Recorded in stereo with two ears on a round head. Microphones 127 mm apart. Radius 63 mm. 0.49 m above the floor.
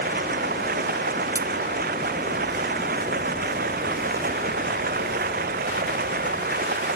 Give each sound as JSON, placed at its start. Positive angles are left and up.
{"t": 0.0, "sound": "running water", "side_deg": -70}
{"t": 1.4, "sound": "cutlery clinking", "side_deg": -25}